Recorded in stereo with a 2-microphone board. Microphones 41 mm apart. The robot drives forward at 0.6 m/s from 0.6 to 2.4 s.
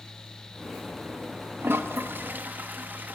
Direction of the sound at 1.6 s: 60° right (ahead or behind).